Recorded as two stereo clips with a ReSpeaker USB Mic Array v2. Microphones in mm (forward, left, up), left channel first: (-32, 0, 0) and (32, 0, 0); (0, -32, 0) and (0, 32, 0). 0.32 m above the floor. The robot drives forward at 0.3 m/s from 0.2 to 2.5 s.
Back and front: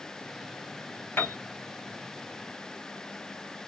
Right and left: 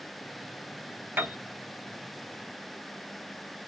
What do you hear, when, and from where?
1.2 s a piano: 135° left, 1.0 m; by 1.4 s 140° left, 1.0 m